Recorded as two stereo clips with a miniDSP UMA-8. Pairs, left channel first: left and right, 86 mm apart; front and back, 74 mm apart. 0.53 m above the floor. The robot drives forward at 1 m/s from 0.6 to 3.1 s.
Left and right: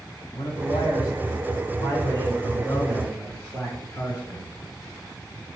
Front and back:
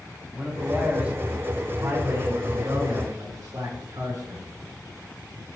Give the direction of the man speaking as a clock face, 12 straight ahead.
9 o'clock.